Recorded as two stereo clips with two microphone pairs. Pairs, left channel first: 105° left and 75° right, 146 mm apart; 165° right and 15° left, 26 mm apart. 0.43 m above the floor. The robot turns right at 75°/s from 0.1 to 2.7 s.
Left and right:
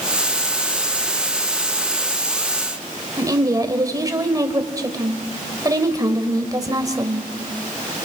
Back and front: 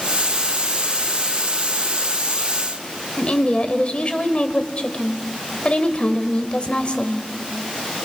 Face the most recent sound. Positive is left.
turn(degrees=-135)